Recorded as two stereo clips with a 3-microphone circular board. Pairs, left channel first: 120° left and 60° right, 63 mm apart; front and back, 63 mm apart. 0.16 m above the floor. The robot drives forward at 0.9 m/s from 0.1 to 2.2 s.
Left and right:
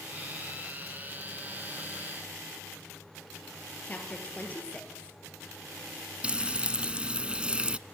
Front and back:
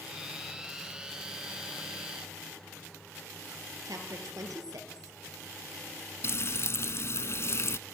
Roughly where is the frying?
Ahead.